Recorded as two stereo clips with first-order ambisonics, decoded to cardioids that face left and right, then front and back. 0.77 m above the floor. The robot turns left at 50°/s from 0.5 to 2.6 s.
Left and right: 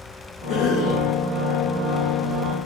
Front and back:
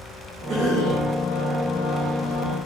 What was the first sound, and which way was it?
A cough, 130° left.